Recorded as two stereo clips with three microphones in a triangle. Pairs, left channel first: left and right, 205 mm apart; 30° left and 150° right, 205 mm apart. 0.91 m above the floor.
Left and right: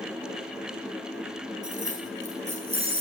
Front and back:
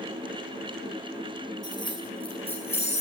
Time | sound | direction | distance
1.6 | keys jangling | 40° right | 7 m